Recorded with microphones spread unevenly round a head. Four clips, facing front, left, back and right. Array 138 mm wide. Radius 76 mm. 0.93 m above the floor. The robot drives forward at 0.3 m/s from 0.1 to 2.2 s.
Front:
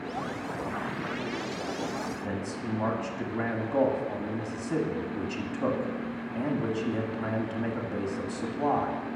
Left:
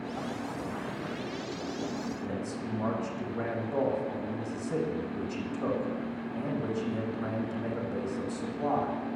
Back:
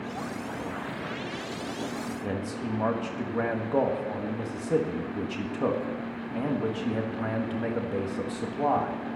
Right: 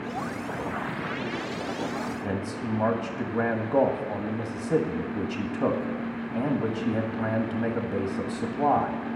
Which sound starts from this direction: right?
A man speaking, at 2.2 s.